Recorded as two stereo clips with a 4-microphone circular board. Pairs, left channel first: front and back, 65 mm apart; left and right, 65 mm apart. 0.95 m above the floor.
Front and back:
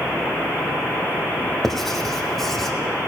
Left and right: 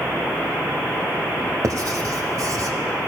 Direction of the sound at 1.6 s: 90° right.